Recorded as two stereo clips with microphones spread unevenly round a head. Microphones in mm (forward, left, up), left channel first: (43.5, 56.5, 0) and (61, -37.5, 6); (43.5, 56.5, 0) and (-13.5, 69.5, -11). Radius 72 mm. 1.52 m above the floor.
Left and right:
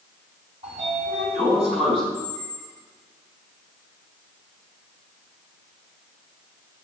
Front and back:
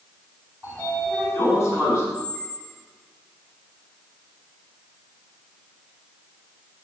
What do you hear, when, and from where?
0.6 s a sliding door: 115° right, 4 m
2.1 s a squeak: 175° right, 1.4 m